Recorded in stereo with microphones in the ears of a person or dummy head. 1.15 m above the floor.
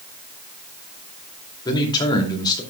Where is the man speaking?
25° left (ahead or behind), 2.5 m.